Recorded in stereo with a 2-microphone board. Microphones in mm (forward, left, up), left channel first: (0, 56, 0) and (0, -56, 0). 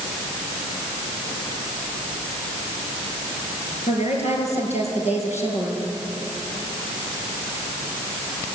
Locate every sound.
3.9 s a woman speaking: 75° left (ahead or behind), 6 m